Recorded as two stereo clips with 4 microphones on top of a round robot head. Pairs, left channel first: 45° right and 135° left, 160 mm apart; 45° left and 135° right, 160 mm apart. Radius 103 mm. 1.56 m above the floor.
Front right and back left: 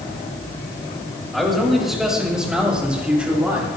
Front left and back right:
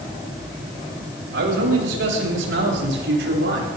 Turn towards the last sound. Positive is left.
turn(degrees=-145)